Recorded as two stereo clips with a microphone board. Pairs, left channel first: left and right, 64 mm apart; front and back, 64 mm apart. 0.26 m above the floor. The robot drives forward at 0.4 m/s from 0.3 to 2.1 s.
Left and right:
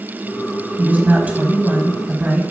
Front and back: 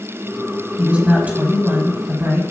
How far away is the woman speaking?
About 1.6 m.